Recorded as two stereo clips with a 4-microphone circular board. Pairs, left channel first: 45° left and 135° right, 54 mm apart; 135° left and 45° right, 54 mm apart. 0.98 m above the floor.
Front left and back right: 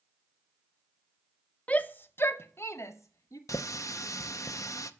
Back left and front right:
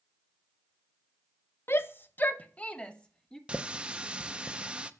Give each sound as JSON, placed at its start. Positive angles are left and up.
{"t": 1.7, "sound": "a shout", "azimuth_deg": 105, "distance_m": 0.7}
{"t": 3.5, "sound": "a running tap", "azimuth_deg": 30, "distance_m": 0.6}